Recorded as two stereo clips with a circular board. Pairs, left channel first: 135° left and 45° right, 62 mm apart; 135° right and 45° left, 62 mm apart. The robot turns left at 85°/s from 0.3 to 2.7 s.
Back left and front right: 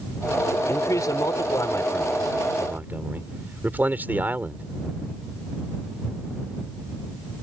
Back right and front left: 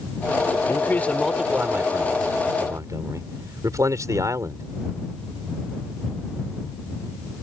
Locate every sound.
0.7 s a man speaking: 175° right; by 4.7 s 15° left